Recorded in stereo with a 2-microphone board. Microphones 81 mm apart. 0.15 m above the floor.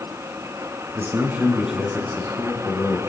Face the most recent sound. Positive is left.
turn(degrees=35)  # may be behind; listen again after turning